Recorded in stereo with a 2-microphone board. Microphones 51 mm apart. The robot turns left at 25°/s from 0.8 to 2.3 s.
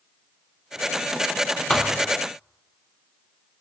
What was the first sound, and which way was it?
A thud, 20° left (ahead or behind).